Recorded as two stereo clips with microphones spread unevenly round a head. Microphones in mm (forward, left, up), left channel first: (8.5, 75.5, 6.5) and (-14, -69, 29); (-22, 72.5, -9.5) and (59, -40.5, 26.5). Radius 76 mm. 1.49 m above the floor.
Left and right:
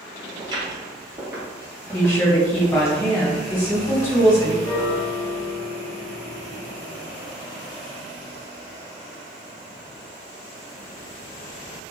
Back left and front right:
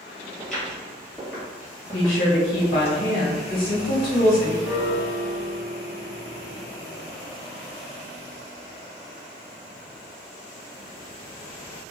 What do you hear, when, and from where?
0.4 s footsteps: 125° right, 1.9 m; by 2.9 s 145° left, 1.6 m
1.9 s a woman speaking: 150° left, 1.8 m
4.6 s a piano: 155° left, 1.1 m